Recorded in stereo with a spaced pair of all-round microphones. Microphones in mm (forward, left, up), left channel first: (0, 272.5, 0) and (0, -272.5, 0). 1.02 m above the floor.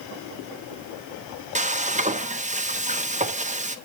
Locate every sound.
1.6 s frying: 15° right (ahead or behind), 0.9 m